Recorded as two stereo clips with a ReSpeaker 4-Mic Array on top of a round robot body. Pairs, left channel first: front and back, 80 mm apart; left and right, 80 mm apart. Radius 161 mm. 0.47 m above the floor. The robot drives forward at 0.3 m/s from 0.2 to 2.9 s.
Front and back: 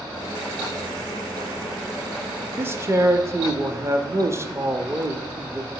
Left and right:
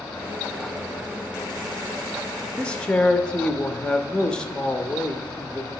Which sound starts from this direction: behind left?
A man speaking, at 2.6 s.